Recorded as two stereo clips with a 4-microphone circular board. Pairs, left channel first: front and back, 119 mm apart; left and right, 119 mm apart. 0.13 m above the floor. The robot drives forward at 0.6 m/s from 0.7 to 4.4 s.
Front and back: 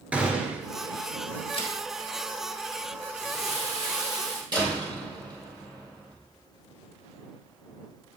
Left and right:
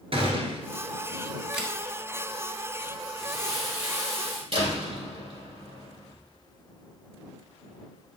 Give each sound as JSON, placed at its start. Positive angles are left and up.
{"t": 0.1, "sound": "a gunshot", "azimuth_deg": -105, "distance_m": 1.3}
{"t": 1.5, "sound": "a camera shutter", "azimuth_deg": -5, "distance_m": 2.5}
{"t": 3.2, "sound": "crumpling", "azimuth_deg": -175, "distance_m": 3.0}
{"t": 4.5, "sound": "a door slam", "azimuth_deg": -130, "distance_m": 2.5}